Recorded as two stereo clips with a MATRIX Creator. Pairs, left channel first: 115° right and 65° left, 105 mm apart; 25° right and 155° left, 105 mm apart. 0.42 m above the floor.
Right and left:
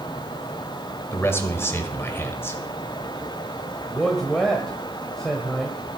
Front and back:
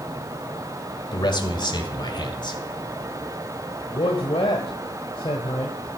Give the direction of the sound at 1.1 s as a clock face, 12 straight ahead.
2 o'clock.